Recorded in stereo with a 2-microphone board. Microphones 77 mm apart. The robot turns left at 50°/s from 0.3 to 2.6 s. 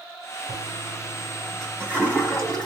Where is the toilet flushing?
50° right (ahead or behind), 2.5 m; by 2.7 s 45° left (ahead or behind), 2.5 m.